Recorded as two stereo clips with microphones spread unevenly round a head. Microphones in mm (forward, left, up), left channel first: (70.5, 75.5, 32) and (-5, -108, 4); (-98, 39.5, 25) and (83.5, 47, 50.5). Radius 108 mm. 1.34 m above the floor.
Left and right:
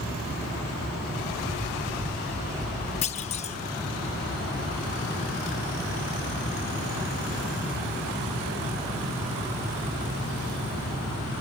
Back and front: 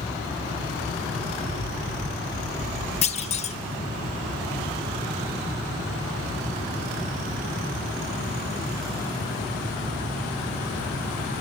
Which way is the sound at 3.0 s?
125° left.